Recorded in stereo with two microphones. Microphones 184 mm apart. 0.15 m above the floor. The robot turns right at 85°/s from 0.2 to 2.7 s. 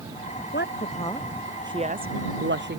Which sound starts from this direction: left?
A woman speaking, at 0.5 s.